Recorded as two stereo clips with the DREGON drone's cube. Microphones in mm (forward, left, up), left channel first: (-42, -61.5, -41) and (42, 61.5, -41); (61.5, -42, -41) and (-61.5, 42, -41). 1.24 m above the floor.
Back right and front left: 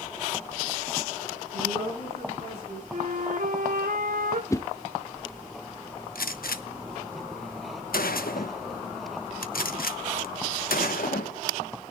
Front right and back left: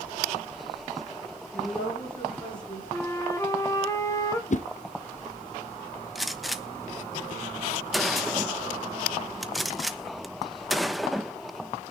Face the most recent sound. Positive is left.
turn(degrees=-125)